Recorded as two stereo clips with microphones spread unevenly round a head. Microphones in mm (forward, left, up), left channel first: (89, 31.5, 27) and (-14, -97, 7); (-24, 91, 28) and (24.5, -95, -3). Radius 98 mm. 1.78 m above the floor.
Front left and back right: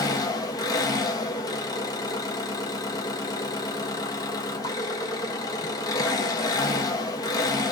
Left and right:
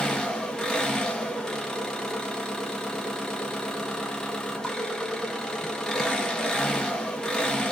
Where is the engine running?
40° left, 1.1 m.